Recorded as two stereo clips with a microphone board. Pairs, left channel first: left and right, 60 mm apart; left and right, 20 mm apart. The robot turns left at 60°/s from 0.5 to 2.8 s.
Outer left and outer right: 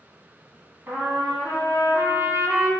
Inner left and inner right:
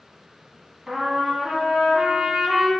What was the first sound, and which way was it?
A trumpet, 45° right.